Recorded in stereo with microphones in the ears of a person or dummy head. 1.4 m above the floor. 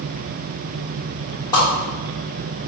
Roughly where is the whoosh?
Left.